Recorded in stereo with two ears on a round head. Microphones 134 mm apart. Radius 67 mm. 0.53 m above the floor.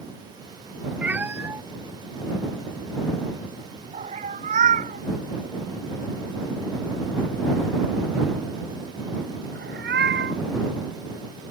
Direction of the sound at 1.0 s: 10° right (ahead or behind).